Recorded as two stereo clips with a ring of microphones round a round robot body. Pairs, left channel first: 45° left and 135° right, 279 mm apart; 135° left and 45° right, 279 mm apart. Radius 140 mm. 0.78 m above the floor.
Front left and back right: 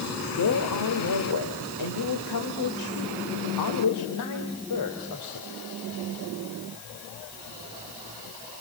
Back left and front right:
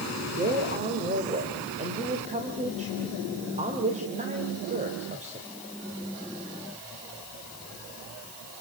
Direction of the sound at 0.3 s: 20° left.